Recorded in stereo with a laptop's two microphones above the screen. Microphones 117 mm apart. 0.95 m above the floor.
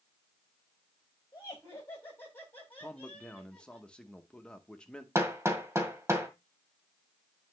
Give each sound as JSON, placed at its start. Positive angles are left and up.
{"t": 1.3, "sound": "laughter", "side_deg": 25, "distance_m": 6.0}
{"t": 2.8, "sound": "a man speaking", "side_deg": 10, "distance_m": 0.7}
{"t": 5.2, "sound": "hammering", "side_deg": -25, "distance_m": 1.9}